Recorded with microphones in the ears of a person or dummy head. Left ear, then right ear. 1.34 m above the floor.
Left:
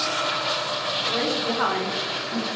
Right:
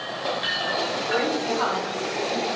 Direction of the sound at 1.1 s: 10° right (ahead or behind).